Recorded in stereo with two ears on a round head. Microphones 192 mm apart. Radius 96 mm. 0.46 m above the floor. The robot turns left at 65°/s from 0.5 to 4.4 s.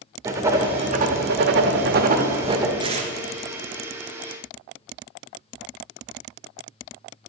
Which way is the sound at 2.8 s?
20° right (ahead or behind).